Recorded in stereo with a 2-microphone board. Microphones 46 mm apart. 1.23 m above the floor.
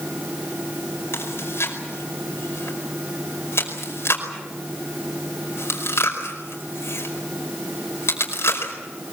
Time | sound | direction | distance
1.1 | chewing | 65° left (ahead or behind) | 5 m